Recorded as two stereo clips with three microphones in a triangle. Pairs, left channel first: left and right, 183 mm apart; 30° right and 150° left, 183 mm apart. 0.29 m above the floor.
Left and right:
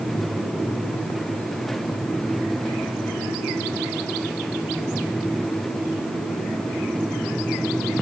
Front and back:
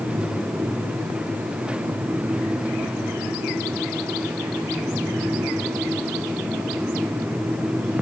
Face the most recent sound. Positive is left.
No sound to turn to.